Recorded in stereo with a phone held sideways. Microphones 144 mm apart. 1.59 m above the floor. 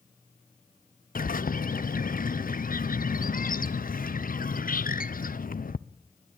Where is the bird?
75° left (ahead or behind), 0.7 m.